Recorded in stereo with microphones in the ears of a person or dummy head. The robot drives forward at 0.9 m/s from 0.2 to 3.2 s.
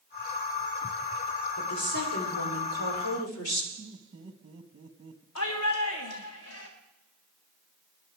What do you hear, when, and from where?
1.6 s a woman speaking: 75° left (ahead or behind), 3.5 m; by 3.7 s 80° left, 3.5 m
3.8 s laughter: 30° right (ahead or behind), 1.8 m
5.3 s a shout: 75° left (ahead or behind), 1.7 m